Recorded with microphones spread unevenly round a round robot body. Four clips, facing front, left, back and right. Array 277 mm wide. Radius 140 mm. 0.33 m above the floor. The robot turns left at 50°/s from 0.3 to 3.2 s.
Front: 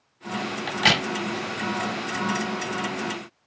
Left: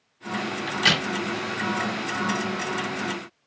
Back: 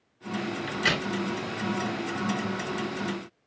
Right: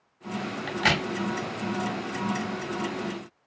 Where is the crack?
Straight ahead, 1.5 m; by 1.1 s 20° right, 1.5 m.